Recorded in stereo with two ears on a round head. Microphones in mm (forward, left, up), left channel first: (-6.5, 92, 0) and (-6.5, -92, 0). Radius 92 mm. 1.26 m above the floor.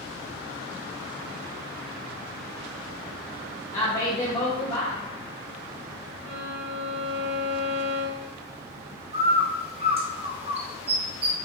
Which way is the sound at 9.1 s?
30° right (ahead or behind).